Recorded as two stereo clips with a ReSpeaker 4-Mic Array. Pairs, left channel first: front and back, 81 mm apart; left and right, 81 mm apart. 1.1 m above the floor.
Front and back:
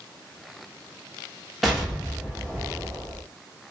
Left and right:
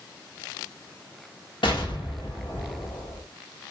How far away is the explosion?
About 0.9 m.